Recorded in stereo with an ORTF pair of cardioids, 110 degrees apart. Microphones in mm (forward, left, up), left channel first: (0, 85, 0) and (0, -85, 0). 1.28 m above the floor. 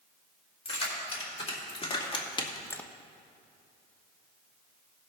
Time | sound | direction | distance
0.7 | keys jangling | 40° left | 3.5 m